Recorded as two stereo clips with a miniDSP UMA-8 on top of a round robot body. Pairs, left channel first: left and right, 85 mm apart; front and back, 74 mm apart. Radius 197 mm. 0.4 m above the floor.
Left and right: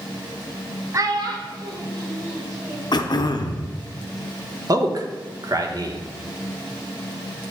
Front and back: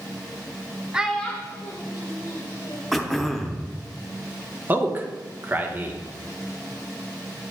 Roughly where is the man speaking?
Behind right.